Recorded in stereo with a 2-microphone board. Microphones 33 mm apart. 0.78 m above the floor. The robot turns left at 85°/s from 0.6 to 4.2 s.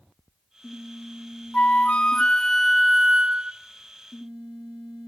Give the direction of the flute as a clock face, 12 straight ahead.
9 o'clock.